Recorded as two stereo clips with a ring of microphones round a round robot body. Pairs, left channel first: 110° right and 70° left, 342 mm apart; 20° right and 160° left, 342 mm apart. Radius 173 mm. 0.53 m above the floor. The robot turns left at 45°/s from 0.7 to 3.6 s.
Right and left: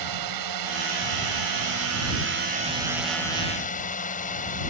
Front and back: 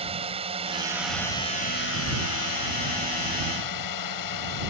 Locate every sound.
0.0 s a drone: 85° left; by 4.7 s 45° right